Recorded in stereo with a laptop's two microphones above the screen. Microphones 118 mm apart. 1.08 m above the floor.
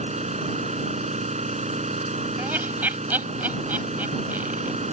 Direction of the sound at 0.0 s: 75° right (ahead or behind).